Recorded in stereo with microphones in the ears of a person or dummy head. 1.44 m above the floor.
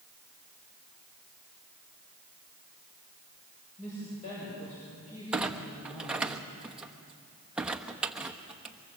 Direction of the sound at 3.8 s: 40° left (ahead or behind).